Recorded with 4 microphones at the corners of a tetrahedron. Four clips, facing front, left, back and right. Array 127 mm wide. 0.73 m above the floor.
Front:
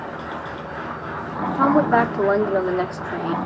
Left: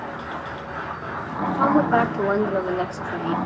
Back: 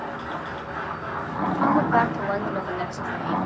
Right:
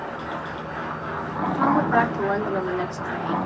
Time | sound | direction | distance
1.6 | a woman speaking | 15° left | 1.8 m